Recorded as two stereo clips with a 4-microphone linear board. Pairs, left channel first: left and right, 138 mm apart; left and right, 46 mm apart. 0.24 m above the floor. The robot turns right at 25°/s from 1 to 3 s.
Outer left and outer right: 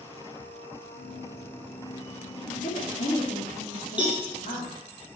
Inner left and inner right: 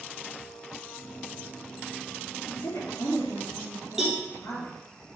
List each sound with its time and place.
2.5 s a woman speaking: 65° left (ahead or behind), 3.5 m; by 4.8 s 75° left (ahead or behind), 3.5 m
4.0 s a cowbell: 10° right (ahead or behind), 3 m